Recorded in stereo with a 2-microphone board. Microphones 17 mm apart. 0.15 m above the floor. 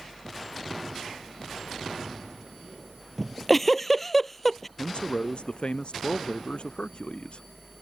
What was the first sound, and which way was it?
A giggle, 5° left (ahead or behind).